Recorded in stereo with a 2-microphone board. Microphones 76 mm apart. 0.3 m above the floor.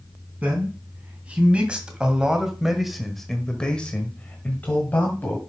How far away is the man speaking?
About 3.5 m.